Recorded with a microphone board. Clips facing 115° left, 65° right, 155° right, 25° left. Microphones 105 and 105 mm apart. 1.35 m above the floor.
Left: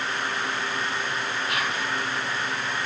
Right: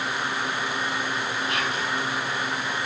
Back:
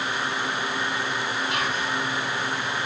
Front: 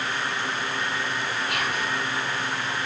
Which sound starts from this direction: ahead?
Whispering, at 1.5 s.